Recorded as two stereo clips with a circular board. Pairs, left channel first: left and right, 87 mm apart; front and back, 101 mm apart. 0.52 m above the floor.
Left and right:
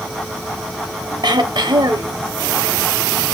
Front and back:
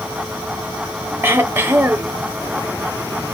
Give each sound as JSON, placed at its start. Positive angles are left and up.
{"t": 1.2, "sound": "throat clearing", "azimuth_deg": -115, "distance_m": 0.7}